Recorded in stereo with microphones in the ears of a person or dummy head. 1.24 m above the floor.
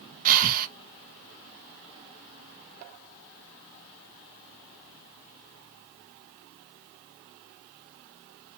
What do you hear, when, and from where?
0.2 s breathing: 45° right (ahead or behind), 0.7 m